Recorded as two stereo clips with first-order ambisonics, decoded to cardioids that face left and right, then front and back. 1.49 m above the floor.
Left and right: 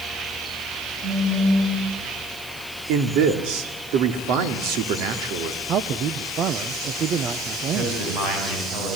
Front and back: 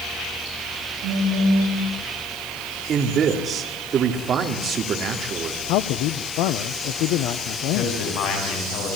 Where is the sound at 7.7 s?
40° right, 9.5 m.